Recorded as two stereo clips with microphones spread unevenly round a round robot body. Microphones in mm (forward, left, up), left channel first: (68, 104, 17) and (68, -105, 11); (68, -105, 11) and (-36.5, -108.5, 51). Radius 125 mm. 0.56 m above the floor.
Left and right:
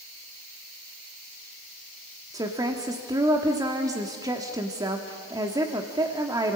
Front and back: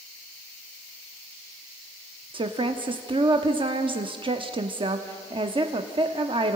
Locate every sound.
2.3 s a woman speaking: 145° right, 1.1 m